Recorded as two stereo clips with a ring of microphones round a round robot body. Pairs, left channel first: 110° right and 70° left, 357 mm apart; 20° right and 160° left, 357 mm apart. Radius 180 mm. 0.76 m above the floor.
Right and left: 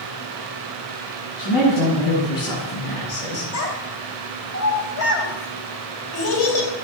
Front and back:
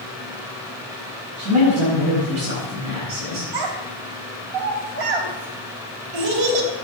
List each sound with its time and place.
1.4 s a man speaking: 145° right, 8 m; by 3.4 s 140° right, 9.5 m
3.5 s a child speaking: 170° right, 3.5 m